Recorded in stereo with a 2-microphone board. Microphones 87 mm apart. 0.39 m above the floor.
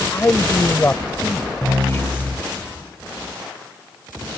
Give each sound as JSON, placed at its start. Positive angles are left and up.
{"t": 0.1, "sound": "a man speaking", "side_deg": 30}